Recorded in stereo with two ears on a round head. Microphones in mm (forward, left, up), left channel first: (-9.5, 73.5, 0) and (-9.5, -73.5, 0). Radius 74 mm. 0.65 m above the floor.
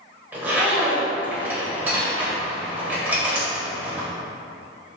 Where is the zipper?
10° right (ahead or behind), 2.5 m.